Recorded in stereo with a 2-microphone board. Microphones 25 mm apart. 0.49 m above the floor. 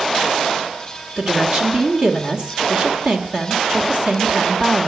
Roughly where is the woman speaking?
Right.